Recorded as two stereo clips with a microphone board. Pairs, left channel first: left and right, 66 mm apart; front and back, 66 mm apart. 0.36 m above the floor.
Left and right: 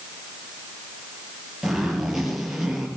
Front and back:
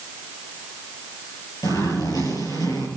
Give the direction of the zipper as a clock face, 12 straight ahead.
12 o'clock.